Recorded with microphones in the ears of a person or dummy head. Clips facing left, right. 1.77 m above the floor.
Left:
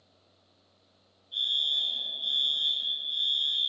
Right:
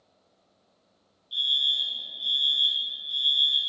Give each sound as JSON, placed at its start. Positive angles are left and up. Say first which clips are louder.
{"t": 1.3, "sound": "a fire alarm", "louder": "right 2 dB", "side_deg": -45, "distance_m": 3.0}